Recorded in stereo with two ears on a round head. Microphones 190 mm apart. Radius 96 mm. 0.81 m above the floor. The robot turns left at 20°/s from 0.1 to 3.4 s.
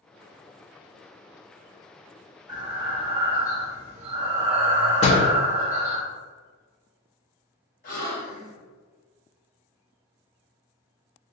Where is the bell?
I don't hear a bell.